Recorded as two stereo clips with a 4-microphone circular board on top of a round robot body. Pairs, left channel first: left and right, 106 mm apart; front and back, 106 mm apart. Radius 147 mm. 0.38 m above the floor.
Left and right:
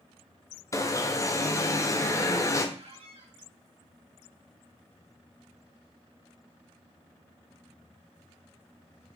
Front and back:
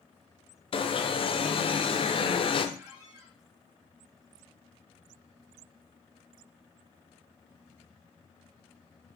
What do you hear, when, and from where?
0.7 s an alarm: 30° left, 0.9 m
2.8 s a squeak: 115° right, 2 m